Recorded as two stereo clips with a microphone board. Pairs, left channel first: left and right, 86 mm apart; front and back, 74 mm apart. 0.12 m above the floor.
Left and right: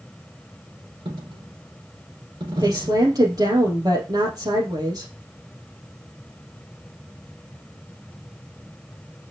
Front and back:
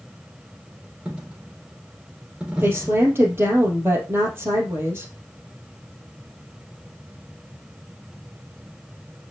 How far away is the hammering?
No hammering in this recording.